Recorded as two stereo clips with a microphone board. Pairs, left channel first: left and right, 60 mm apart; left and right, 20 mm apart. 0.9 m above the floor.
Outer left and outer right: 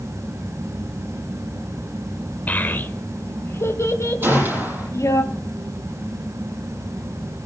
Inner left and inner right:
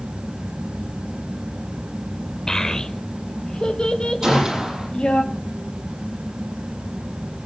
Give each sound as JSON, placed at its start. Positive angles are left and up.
{"t": 2.5, "sound": "a child speaking", "side_deg": 30, "distance_m": 1.9}
{"t": 4.2, "sound": "a gunshot", "side_deg": -30, "distance_m": 6.5}